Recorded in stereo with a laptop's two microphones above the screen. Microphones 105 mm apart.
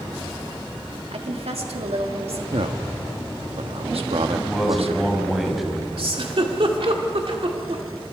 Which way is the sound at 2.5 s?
75° right (ahead or behind).